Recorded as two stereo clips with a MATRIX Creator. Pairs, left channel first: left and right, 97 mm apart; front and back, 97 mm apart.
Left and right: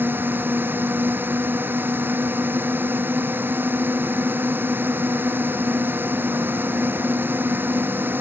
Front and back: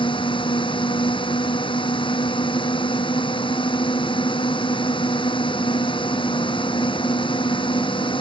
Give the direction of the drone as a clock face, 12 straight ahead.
1 o'clock.